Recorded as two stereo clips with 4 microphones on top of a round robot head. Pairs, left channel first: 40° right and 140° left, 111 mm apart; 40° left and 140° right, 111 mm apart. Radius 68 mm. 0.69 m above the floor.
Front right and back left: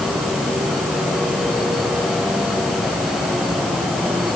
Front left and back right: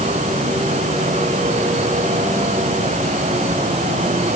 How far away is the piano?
No piano in this recording.